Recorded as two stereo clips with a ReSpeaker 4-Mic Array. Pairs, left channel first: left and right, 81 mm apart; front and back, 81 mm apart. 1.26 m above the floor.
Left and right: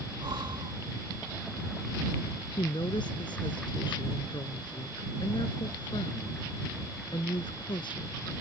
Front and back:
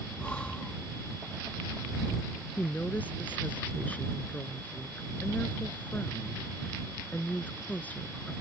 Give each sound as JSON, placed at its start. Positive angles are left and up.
{"t": 0.2, "sound": "breathing", "azimuth_deg": -75}
{"t": 2.6, "sound": "a woman speaking", "azimuth_deg": 70}